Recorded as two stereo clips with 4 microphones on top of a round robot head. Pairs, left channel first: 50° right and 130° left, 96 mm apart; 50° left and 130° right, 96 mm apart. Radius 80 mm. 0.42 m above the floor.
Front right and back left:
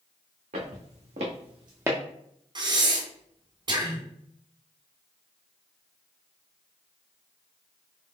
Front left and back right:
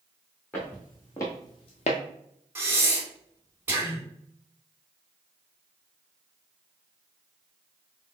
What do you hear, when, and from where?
0.5 s footsteps: 125° left, 1.6 m; by 2.0 s 50° left, 0.6 m
2.5 s breathing: 160° left, 1.3 m